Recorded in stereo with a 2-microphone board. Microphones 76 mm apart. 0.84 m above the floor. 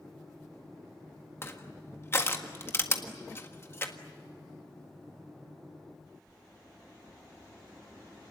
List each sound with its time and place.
1.4 s crushing: 35° left (ahead or behind), 1.6 m